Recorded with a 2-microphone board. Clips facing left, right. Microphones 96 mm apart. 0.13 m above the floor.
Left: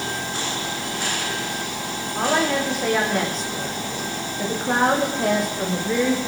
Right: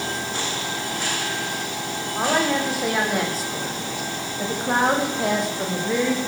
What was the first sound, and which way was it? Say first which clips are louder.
A woman speaking: even; 5° right (ahead or behind).